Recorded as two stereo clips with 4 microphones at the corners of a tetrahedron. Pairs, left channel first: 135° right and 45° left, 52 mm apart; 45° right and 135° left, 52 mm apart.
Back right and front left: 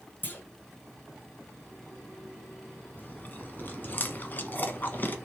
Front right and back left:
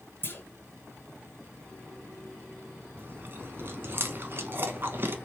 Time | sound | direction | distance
0.2 | a clunk | 85° right | 1.5 m
3.0 | chewing | 175° left | 0.8 m